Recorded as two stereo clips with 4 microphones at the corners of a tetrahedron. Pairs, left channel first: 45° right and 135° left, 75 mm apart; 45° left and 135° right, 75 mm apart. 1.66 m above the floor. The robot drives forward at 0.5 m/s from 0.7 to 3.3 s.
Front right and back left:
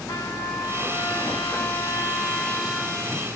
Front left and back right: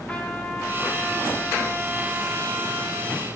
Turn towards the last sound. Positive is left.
turn(degrees=-145)